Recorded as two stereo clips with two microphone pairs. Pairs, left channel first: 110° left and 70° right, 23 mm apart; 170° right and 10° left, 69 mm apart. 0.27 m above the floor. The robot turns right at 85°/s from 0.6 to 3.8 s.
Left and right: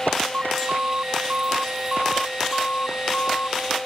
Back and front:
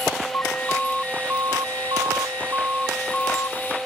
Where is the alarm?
105° right; by 3.6 s 150° left.